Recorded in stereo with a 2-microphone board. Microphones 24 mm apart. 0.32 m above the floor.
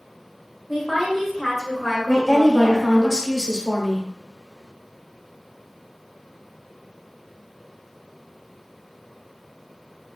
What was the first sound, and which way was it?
A woman speaking, 5° left (ahead or behind).